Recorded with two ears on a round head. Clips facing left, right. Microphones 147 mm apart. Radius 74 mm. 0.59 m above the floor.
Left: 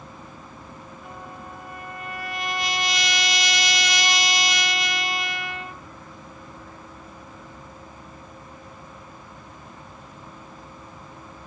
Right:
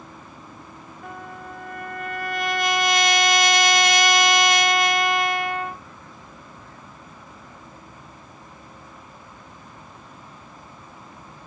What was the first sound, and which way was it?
A trumpet, 45° right (ahead or behind).